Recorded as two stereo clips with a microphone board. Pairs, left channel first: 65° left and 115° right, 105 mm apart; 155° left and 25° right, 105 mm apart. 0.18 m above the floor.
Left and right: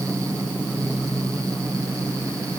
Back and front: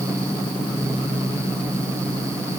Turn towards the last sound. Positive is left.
No sound to turn to.